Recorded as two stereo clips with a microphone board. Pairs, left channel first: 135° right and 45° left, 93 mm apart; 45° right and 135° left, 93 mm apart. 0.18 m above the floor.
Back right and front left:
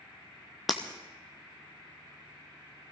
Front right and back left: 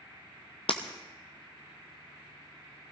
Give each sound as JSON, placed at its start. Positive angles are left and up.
{"t": 0.7, "sound": "breaking glass", "azimuth_deg": -45, "distance_m": 1.6}